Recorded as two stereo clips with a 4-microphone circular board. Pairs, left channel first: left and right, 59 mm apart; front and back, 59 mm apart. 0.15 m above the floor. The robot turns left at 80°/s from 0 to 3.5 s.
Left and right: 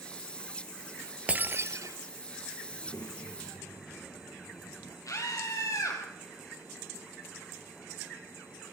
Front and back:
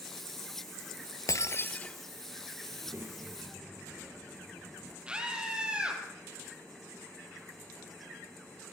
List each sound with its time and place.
1.3 s breaking glass: 25° right, 0.8 m; by 2.0 s 80° right, 0.8 m
2.7 s a child speaking: 145° left, 3 m; by 5.0 s 85° left, 3 m
5.1 s a scream: 105° left, 5.5 m